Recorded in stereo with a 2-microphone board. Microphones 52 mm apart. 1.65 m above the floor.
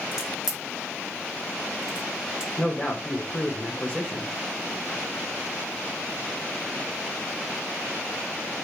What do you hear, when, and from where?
0.1 s a crack: 10° right (ahead or behind), 1.2 m
2.6 s a man speaking: 20° left (ahead or behind), 1.2 m